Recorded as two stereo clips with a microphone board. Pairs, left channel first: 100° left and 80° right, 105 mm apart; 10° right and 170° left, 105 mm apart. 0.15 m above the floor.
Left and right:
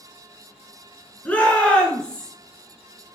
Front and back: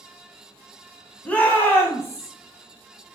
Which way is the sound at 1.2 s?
50° left.